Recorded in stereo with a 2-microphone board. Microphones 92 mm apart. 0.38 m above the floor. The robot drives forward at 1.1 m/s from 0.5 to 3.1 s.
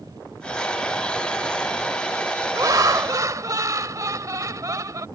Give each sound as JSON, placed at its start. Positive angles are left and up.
{"t": 2.5, "sound": "laughter", "side_deg": -45}